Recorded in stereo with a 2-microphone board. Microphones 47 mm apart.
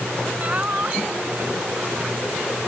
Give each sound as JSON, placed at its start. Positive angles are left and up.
{"t": 0.4, "sound": "laughter", "side_deg": -30}